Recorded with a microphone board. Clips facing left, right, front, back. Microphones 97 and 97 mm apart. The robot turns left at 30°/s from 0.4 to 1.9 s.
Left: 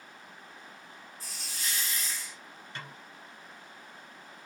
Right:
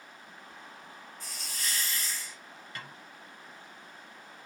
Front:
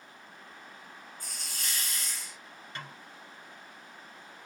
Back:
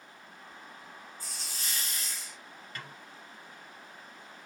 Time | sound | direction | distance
1.2 | a hiss | 35° left | 2.5 m
2.8 | a snare drum | 45° left | 1.7 m